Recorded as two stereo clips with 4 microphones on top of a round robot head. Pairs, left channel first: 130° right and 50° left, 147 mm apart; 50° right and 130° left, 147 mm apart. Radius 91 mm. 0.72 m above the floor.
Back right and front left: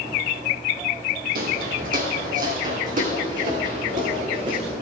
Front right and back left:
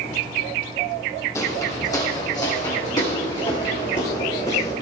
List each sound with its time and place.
1.4 s footsteps: 20° left, 1.9 m; by 4.7 s 10° left, 4.5 m